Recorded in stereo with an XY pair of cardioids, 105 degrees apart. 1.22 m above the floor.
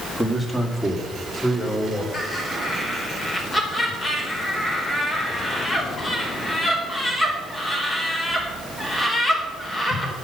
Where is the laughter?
30° left, 5 m.